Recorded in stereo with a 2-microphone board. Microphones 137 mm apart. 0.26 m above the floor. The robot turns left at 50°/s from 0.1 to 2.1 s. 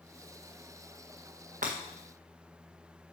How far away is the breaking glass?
About 1.6 m.